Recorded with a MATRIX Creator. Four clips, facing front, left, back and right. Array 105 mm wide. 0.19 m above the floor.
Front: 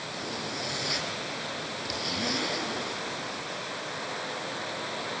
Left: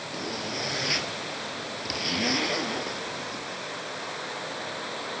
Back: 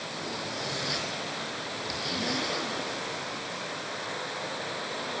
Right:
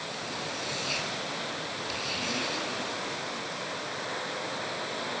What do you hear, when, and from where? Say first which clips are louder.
0.1 s a zipper: left 6 dB, even; 85° left, 4.5 m